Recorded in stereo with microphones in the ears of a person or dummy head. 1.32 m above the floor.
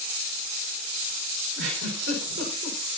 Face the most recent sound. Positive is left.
turn(degrees=-65)  # may be behind; listen again after turning